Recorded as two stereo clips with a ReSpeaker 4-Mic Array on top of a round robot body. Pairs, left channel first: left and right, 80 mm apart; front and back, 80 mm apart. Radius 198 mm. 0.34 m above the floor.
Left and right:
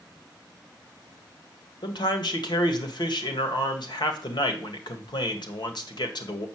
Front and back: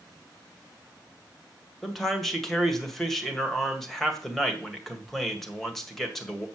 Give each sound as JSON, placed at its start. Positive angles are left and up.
{"t": 1.8, "sound": "a man speaking", "azimuth_deg": 85, "distance_m": 2.0}